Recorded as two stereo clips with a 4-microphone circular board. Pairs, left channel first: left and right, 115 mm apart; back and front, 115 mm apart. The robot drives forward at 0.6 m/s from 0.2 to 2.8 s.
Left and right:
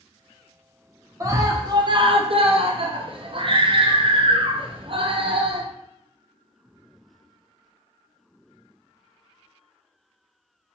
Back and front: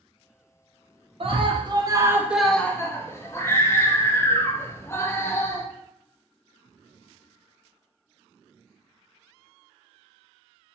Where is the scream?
30° right, 0.9 m; by 5.7 s 115° right, 0.6 m.